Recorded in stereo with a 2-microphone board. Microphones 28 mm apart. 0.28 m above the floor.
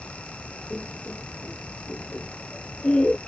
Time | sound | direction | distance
0.7 | laughter | 55° left (ahead or behind) | ?